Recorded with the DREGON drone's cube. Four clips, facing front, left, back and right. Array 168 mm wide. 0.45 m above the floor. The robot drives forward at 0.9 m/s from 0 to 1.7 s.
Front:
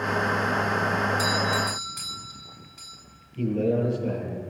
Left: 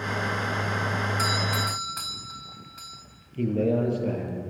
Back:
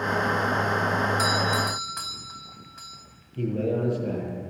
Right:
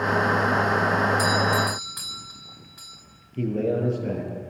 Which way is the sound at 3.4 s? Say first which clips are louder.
Even, front 2 dB; 115° right.